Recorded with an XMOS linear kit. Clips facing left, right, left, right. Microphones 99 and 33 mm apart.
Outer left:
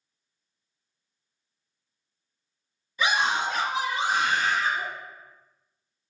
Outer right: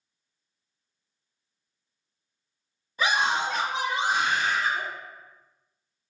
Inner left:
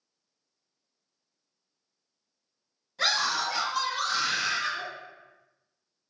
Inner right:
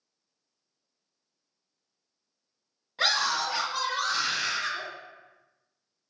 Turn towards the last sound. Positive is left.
turn(degrees=-5)  # may be behind; listen again after turning